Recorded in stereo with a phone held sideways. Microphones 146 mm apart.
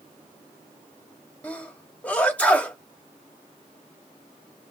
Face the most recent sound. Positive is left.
turn(degrees=10)  # may be behind; listen again after turning